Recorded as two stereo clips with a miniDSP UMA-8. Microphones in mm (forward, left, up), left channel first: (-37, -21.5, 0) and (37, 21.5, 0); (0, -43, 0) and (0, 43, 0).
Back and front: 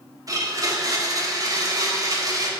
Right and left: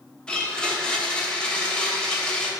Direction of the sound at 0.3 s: 10° right.